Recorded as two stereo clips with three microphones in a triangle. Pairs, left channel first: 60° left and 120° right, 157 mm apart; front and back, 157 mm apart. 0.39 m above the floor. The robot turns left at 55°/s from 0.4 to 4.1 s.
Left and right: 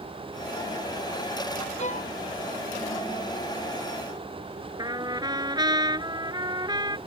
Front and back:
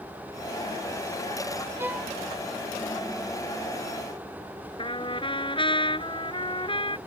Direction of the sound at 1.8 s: 105° left.